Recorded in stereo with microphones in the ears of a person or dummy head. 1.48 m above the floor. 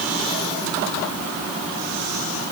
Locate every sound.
Only background noise.